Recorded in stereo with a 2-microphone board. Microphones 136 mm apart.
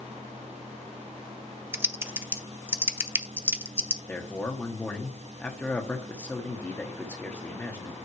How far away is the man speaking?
About 1.1 m.